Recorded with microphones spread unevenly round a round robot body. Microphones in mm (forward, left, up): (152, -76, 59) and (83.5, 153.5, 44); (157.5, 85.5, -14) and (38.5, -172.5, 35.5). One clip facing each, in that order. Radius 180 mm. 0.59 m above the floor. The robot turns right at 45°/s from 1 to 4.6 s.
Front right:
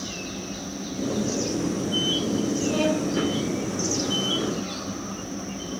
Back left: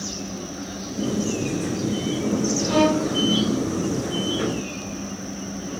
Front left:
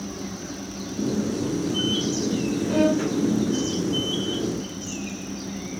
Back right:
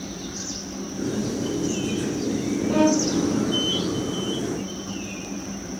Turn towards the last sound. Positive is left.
turn(degrees=-125)